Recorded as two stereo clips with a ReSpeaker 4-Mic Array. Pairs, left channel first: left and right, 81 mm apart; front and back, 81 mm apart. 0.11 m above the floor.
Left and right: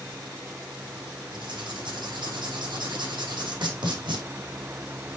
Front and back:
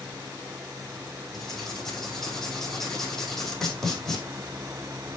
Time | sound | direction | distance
1.3 | writing | 85° right | 4.5 m